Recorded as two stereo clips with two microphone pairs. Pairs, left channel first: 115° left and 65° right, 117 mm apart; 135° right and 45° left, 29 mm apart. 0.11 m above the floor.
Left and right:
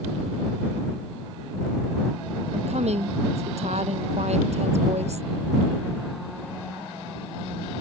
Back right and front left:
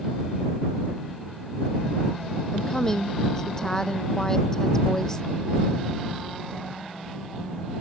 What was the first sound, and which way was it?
A woman speaking, 60° right.